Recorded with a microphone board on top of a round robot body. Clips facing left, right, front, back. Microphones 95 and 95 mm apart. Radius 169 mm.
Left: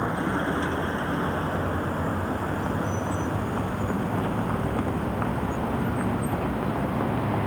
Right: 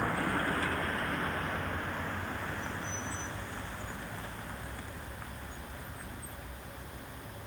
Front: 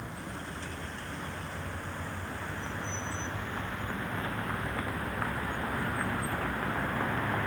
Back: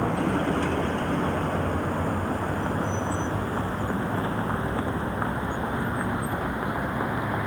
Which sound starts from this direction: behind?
A vehicle, at 0.0 s.